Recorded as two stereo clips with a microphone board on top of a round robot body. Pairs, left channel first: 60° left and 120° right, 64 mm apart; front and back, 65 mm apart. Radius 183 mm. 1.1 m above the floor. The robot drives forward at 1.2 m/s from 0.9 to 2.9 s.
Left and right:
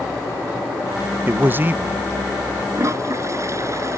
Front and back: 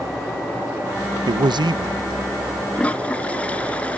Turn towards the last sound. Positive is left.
turn(degrees=-70)